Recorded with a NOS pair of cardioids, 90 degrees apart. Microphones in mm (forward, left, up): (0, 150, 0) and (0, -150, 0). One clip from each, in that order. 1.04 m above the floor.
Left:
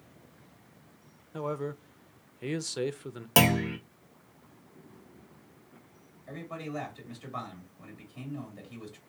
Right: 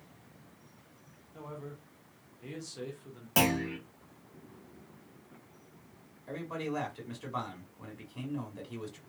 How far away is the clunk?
About 1.1 m.